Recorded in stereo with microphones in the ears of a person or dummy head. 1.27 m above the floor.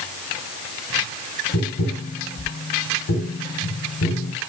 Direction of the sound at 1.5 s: 80° left.